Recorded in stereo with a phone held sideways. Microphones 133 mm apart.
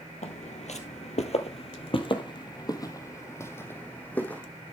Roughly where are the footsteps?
Left.